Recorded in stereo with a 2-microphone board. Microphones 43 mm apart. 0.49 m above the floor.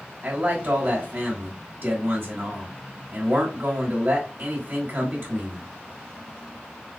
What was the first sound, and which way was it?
A man speaking, 55° right (ahead or behind).